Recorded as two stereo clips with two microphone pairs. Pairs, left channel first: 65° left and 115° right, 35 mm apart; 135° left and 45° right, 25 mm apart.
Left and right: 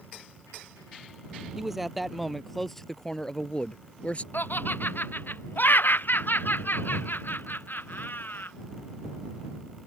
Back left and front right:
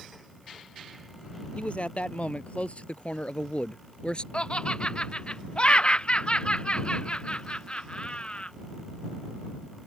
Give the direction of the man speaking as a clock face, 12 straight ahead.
6 o'clock.